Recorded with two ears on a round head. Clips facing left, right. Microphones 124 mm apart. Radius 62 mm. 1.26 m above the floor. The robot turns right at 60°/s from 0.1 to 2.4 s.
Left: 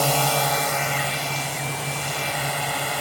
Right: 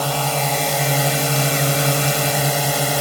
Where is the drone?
175° left; by 3.0 s 50° right.